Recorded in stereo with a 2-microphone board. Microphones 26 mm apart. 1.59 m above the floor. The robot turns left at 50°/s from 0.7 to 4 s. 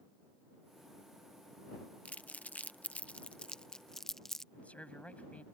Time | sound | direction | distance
2.0 | crumpling | 65° left (ahead or behind) | ?
4.5 | a man speaking | 60° left (ahead or behind) | ?